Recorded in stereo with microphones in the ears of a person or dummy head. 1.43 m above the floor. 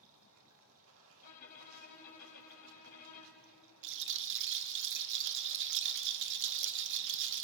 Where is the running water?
80° right, 2.5 m.